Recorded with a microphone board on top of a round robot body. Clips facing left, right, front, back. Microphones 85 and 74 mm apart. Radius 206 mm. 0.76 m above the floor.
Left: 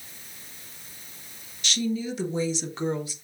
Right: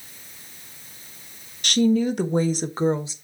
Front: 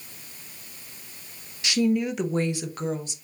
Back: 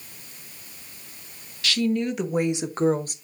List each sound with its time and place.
1.6 s a woman speaking: 65° right, 1.6 m; by 3.1 s 150° right, 1.3 m